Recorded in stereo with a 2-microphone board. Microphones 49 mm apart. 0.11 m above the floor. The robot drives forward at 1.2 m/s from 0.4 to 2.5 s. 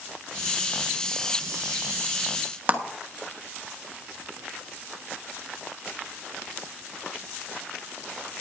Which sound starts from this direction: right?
A clap, at 2.7 s.